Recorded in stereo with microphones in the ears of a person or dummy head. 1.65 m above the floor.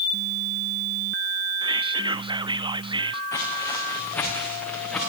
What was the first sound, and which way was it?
Whispering, 25° right (ahead or behind).